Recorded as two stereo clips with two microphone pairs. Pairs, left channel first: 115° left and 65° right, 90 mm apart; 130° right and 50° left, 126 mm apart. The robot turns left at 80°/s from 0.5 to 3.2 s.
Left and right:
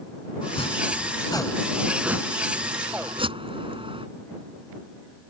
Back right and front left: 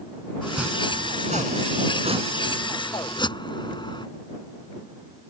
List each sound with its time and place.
0.4 s chopping: 140° left; by 4.1 s 75° right